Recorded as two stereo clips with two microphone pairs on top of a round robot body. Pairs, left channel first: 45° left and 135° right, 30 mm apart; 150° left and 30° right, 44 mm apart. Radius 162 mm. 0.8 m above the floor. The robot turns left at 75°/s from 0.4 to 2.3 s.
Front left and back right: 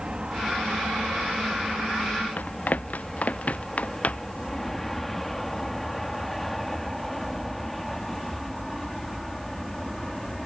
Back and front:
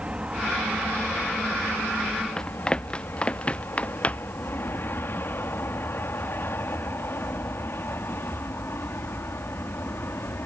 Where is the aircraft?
90° right; by 10.5 s 130° left.